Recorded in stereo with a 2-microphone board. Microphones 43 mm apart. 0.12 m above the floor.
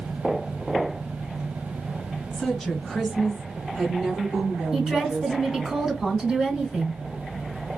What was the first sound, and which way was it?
A woman speaking, 5° left (ahead or behind).